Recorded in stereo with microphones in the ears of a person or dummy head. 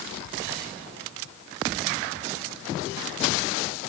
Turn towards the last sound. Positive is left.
No sound to turn to.